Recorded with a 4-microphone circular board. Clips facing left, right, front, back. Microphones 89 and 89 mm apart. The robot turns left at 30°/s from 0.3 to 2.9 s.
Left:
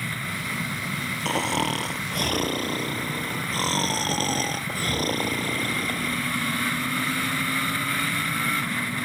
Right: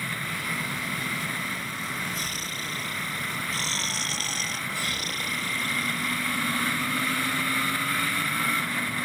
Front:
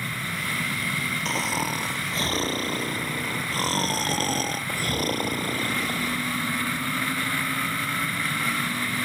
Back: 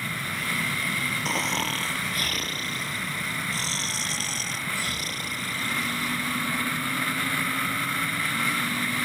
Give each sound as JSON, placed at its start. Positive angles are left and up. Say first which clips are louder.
{"t": 1.2, "sound": "snoring", "louder": "left 8 dB, front 1 dB", "azimuth_deg": 90}